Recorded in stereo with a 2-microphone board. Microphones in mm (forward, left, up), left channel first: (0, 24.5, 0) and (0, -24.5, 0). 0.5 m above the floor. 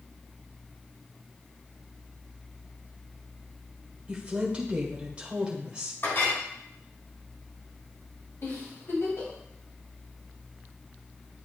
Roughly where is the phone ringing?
I don't hear a phone ringing.